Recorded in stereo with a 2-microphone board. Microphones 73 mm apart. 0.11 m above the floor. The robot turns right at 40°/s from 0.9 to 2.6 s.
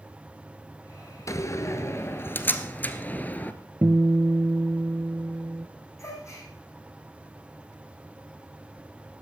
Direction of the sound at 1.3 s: 45° left (ahead or behind).